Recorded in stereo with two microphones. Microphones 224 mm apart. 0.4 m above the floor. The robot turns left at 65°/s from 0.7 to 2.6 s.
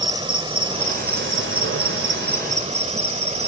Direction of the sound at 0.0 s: 25° right.